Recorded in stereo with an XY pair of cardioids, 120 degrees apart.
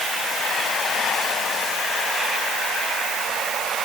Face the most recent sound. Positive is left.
No sound to turn to.